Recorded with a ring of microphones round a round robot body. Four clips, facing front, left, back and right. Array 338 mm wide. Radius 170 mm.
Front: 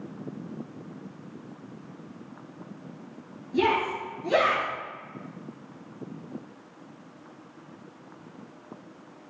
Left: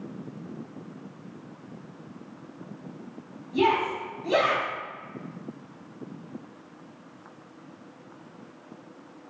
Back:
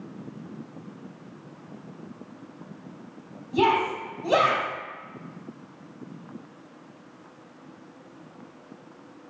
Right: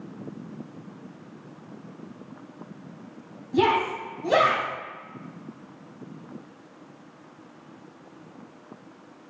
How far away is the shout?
About 3.5 m.